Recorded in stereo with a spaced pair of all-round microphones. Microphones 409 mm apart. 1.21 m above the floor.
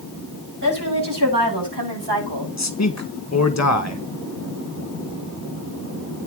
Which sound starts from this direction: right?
A woman speaking, at 0.6 s.